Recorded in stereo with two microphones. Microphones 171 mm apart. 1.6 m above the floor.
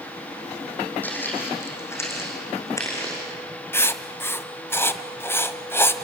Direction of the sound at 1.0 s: 10° left (ahead or behind).